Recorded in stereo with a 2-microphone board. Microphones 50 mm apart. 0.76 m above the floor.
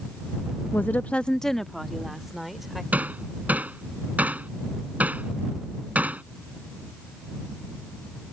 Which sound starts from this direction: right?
Hammering, at 2.9 s.